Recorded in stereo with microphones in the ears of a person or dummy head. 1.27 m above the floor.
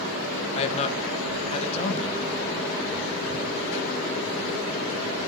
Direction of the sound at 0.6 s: 40° left (ahead or behind).